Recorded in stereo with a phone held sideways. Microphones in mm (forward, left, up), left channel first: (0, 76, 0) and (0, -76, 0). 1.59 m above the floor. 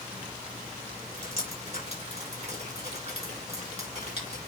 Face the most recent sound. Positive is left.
turn(degrees=-45)  # may be behind; listen again after turning